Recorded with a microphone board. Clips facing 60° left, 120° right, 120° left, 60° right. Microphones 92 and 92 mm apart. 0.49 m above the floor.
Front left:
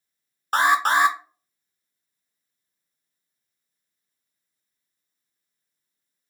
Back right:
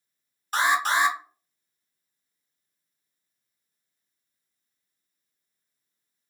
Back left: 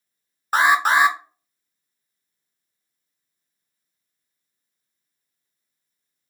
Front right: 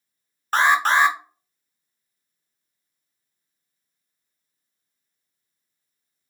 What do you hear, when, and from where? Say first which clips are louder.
0.5 s an alarm: front left 4 dB, back left 1 dB; 45° left, 0.6 m